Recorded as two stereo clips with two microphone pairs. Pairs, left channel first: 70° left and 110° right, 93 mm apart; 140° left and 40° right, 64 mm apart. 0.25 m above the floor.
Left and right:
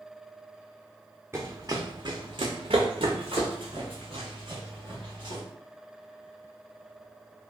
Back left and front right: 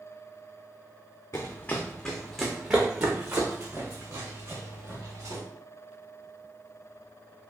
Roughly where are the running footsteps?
Behind.